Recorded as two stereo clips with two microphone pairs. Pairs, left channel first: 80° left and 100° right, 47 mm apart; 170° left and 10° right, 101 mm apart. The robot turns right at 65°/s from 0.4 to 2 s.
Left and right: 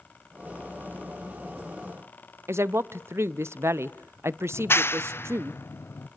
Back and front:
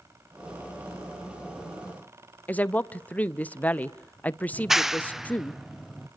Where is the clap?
75° left, 0.6 m.